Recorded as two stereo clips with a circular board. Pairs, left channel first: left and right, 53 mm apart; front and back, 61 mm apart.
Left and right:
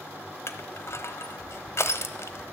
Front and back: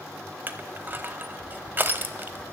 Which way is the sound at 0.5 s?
125° left.